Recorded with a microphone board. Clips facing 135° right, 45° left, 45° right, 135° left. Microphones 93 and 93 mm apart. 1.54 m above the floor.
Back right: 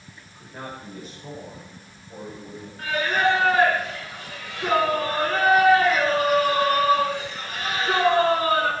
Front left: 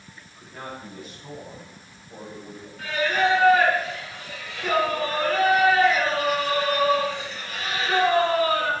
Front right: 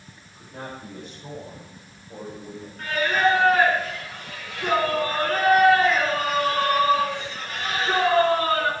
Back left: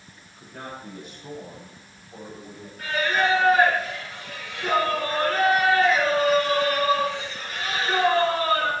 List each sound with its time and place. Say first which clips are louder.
0.3 s a man speaking: even, front right 1 dB; 65° right, 9 m; by 2.7 s 45° right, 8.5 m
2.8 s singing: even, front right 2 dB; 80° right, 6.5 m